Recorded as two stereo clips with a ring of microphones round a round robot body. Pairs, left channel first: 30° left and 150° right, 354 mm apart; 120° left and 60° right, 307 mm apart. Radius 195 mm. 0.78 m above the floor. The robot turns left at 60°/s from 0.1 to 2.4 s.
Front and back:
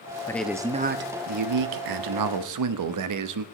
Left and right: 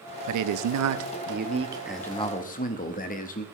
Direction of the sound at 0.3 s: 50° right.